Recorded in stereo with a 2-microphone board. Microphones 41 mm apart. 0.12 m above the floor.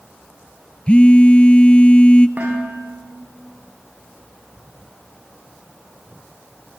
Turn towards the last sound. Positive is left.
turn(degrees=-45)  # may be behind; listen again after turning